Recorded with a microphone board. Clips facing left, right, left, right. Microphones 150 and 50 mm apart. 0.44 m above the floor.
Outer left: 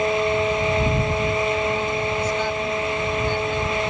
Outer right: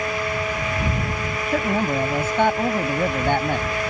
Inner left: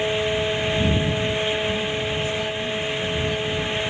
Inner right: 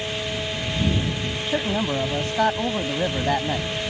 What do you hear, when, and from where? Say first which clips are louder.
1.5 s a man speaking: outer right 1 dB, inner right 1 dB; 65° right (ahead or behind)